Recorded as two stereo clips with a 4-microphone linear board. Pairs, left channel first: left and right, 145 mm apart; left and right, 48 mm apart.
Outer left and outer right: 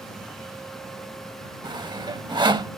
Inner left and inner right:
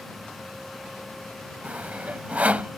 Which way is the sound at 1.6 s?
30° right (ahead or behind).